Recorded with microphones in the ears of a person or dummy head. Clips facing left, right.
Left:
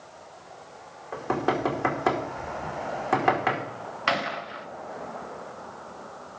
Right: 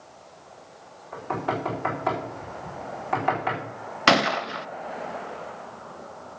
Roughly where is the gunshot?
Right.